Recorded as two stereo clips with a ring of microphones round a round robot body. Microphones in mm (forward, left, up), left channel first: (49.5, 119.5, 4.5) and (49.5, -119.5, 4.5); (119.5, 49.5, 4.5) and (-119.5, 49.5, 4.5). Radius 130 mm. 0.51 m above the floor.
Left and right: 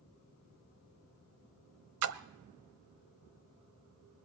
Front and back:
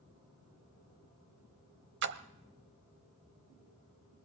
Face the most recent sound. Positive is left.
turn(degrees=-130)